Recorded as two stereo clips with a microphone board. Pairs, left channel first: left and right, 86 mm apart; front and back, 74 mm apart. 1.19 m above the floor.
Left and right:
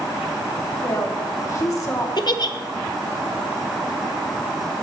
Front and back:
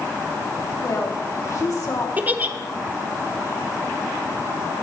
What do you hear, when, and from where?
0.8 s a woman speaking: 40° left, 2 m
2.2 s a giggle: 115° left, 0.8 m